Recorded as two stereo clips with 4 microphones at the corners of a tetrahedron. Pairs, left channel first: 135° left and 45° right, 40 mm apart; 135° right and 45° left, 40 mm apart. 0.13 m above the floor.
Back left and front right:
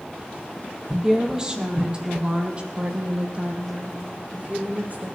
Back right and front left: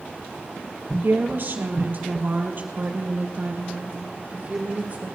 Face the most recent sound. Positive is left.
turn(degrees=-5)